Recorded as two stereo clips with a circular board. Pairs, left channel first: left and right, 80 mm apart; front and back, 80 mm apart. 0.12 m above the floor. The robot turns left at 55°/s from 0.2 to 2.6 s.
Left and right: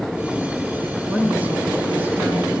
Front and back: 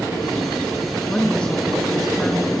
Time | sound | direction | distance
1.1 | a woman speaking | 35° right | 1.1 m